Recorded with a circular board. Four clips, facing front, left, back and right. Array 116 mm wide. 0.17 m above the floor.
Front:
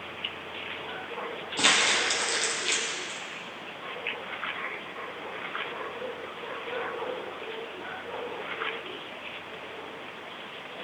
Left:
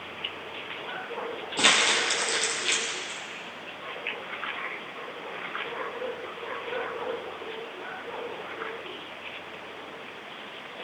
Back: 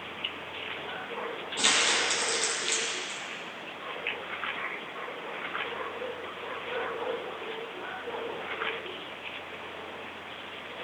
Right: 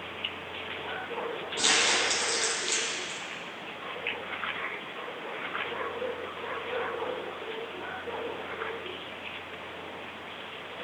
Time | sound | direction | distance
1.6 | crumpling | 65° left | 3 m